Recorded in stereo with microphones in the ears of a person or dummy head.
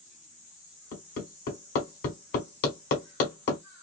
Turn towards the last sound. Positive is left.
turn(degrees=50)  # may be behind; listen again after turning